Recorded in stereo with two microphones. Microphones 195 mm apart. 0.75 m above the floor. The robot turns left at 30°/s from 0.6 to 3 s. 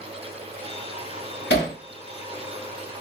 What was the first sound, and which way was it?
Hammering, 65° left (ahead or behind).